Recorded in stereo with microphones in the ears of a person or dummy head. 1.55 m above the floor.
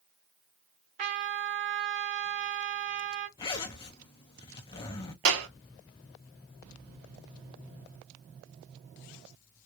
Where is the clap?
70° right (ahead or behind), 1.3 m.